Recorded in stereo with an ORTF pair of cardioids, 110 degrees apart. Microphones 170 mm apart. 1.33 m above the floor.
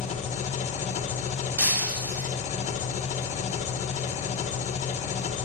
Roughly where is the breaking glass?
Ahead.